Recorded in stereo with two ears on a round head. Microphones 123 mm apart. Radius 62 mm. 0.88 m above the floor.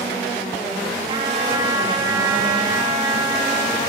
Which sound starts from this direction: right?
A trumpet, at 1.1 s.